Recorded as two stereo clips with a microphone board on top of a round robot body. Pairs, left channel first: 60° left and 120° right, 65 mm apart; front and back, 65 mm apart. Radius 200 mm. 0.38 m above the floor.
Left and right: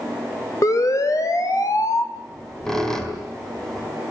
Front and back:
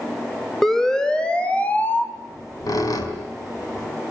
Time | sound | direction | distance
0.6 | a siren | 85° left | 3 m
2.1 | a squeak | 25° right | 4 m